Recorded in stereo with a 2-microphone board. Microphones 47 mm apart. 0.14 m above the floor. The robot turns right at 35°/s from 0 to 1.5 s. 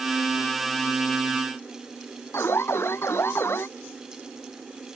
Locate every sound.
2.3 s an alarm: 60° left (ahead or behind)